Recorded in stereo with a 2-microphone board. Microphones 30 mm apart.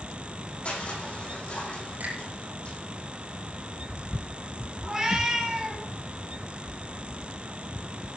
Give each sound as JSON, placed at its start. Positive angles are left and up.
{"t": 0.7, "sound": "crushing", "side_deg": 50, "distance_m": 8.5}
{"t": 2.0, "sound": "a finger snap", "side_deg": -65, "distance_m": 5.0}
{"t": 4.8, "sound": "a cat meowing", "side_deg": -10, "distance_m": 6.5}